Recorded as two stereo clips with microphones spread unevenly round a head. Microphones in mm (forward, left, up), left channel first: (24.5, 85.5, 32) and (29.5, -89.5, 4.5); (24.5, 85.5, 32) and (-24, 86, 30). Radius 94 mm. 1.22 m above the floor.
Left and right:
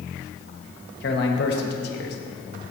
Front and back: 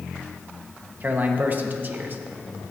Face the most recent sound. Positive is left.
turn(degrees=130)